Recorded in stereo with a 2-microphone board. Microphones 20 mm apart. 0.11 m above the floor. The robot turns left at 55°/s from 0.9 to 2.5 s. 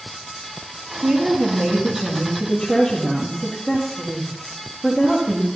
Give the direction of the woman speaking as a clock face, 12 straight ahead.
4 o'clock.